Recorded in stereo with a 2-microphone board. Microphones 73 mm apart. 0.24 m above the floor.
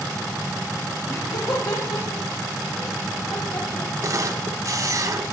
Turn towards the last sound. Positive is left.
turn(degrees=-45)  # may be behind; listen again after turning